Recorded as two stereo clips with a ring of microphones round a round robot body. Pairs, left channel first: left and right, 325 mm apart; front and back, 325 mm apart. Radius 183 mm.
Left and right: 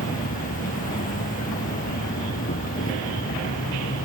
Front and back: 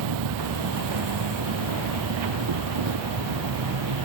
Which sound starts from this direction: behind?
An insect, at 0.0 s.